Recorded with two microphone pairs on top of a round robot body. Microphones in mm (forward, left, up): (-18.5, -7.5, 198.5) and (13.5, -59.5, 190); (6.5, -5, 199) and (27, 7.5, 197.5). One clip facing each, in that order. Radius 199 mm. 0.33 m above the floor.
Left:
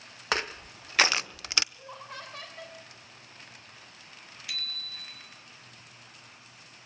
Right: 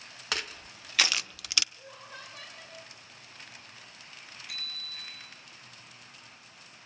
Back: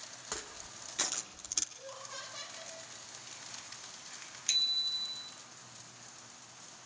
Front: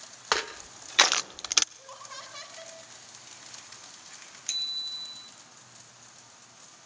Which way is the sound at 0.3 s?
60° left.